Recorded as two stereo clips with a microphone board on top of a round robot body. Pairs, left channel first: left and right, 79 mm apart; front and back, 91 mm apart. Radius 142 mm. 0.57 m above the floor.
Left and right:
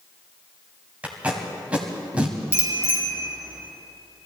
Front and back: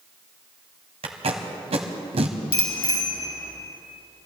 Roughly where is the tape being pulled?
Behind.